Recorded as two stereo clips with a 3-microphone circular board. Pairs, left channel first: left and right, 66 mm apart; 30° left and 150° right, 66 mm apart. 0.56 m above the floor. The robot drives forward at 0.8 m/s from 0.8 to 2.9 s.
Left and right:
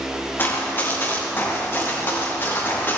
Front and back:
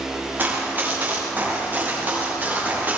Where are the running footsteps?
150° left, 6 m; by 3.0 s 145° left, 9 m.